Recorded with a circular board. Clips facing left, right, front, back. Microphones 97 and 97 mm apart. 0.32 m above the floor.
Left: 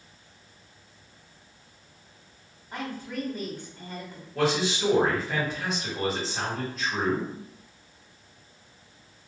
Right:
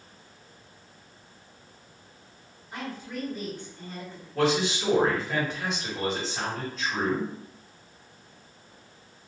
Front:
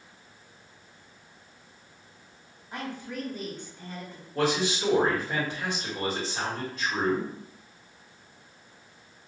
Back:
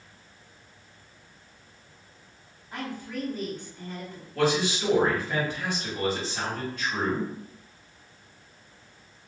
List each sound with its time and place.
2.7 s a woman speaking: 70° left, 1.6 m
4.3 s a man speaking: 5° left, 1.3 m